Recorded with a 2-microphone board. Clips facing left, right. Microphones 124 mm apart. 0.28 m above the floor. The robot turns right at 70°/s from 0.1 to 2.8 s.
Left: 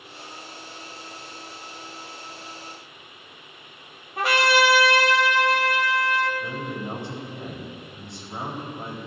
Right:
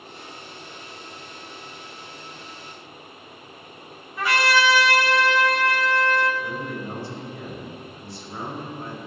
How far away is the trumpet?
About 1.6 m.